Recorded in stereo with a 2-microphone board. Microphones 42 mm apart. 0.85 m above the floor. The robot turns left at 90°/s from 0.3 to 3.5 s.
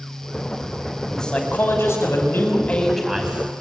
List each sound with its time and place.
1.1 s a man speaking: 175° left, 5.5 m; by 3.5 s 40° right, 5.5 m